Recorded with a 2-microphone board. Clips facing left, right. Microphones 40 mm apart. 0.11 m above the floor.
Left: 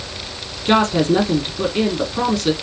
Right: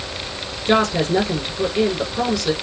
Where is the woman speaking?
50° left (ahead or behind), 3.5 m.